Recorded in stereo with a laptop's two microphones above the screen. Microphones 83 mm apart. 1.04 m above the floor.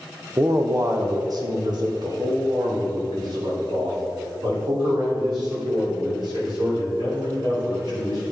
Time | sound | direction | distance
0.4 | a man speaking | 30° right (ahead or behind) | 0.6 m